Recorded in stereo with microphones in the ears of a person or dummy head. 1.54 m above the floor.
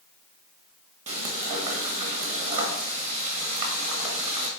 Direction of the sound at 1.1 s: 35° right (ahead or behind).